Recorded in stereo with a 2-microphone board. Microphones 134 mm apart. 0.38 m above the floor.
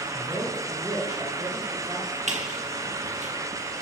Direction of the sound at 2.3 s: 60° right (ahead or behind).